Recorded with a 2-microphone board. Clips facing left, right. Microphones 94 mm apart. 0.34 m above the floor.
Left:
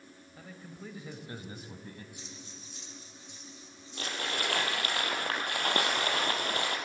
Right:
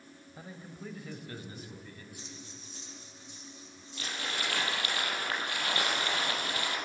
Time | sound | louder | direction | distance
0.4 | a man speaking | right 1 dB | 25° right (ahead or behind) | 1.8 m
2.2 | breathing | right 1 dB | 40° right (ahead or behind) | 6.5 m
4.0 | crumpling | left 2 dB | 50° left (ahead or behind) | 3 m